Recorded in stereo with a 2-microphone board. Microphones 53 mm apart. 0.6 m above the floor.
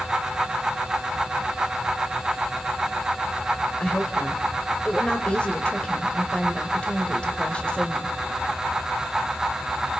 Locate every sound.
3.8 s a woman speaking: 20° left (ahead or behind), 3 m